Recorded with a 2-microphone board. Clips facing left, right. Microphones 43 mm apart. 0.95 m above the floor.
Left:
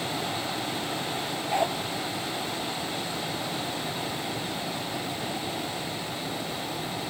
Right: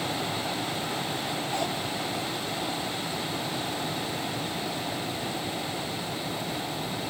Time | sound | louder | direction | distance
1.5 | a dog barking | left 6 dB | 25° left (ahead or behind) | ?